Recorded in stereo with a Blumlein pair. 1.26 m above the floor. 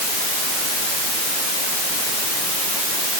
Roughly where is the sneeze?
No sneeze in this recording.